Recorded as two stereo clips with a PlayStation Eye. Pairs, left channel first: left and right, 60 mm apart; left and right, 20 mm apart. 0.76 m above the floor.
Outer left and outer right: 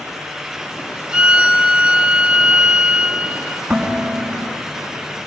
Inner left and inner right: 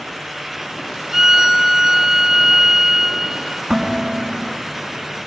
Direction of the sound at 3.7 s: 10° right (ahead or behind).